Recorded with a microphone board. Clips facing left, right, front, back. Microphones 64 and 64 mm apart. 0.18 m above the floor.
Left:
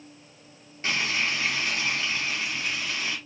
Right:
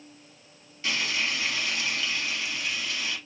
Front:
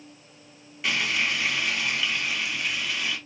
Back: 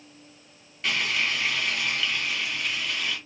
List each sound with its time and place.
0.8 s frying: 80° left, 1.4 m